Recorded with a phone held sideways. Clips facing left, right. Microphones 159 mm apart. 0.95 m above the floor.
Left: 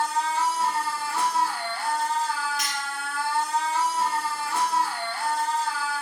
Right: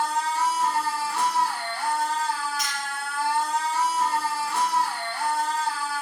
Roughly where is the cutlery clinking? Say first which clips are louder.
Even; left.